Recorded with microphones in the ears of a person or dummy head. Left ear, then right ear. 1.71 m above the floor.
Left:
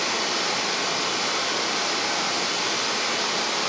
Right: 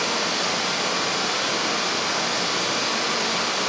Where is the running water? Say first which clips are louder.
Right 1 dB; 60° left (ahead or behind), 2 m.